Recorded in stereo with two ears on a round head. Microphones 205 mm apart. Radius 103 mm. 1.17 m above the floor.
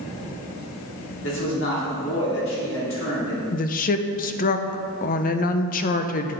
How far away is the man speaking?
About 3 m.